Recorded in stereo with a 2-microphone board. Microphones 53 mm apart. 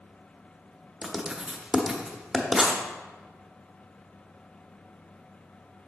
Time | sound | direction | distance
1.0 | writing | 5° right (ahead or behind) | 0.9 m